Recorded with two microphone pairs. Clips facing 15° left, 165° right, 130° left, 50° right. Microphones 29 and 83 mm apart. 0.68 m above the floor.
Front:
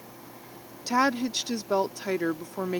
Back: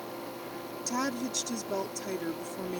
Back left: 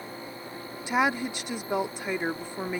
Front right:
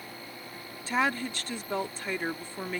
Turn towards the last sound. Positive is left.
turn(degrees=60)